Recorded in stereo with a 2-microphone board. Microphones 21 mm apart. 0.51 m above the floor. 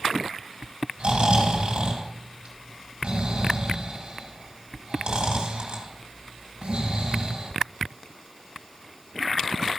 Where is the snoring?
55° right (ahead or behind), 2.5 m.